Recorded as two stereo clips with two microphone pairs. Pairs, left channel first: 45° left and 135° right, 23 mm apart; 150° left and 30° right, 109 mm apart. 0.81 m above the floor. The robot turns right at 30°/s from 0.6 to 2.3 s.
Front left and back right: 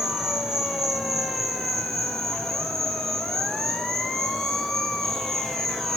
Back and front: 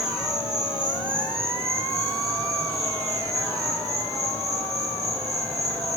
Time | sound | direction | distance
0.0 | an insect | 30° right | 5 m